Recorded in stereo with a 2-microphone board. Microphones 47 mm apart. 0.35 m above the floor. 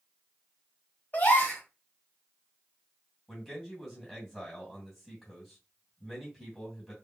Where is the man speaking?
5° left (ahead or behind), 2 m.